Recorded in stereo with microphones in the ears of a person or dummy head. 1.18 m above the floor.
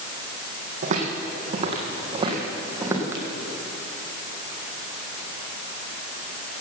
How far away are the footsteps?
About 3 m.